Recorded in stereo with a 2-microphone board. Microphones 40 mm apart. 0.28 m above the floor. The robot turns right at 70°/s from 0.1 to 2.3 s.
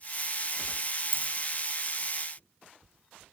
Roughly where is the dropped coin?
Right.